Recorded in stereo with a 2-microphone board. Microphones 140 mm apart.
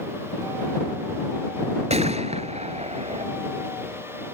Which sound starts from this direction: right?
A gunshot, at 1.9 s.